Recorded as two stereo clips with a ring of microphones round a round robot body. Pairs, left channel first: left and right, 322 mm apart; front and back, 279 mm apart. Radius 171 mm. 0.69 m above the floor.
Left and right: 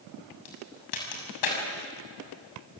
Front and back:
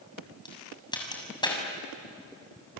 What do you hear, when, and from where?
0.5 s a crack: 75° left, 6.5 m